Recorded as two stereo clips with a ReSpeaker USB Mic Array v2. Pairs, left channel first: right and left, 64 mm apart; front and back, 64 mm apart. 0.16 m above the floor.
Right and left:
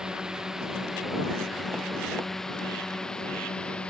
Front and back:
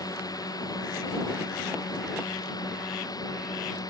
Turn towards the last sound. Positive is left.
turn(degrees=-15)